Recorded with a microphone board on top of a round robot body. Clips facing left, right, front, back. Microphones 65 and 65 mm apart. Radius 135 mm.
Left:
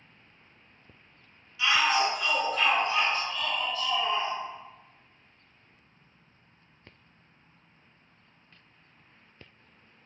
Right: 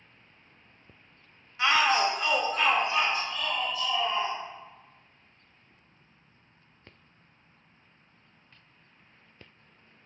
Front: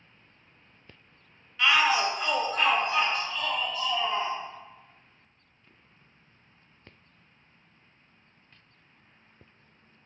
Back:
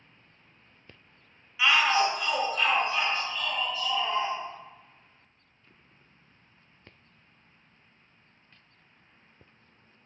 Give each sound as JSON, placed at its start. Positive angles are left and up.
{"t": 1.6, "sound": "a shout", "azimuth_deg": -100, "distance_m": 0.6}